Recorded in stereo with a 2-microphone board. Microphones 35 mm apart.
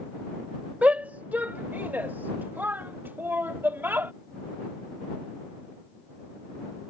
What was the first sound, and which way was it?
A shout, 40° right (ahead or behind).